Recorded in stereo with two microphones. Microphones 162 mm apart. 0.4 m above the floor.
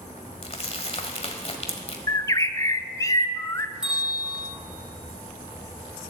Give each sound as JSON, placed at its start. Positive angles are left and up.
{"t": 0.4, "sound": "crumpling", "side_deg": 40, "distance_m": 1.4}
{"t": 2.1, "sound": "a bird", "side_deg": 20, "distance_m": 0.6}
{"t": 3.8, "sound": "a bell", "side_deg": -5, "distance_m": 3.5}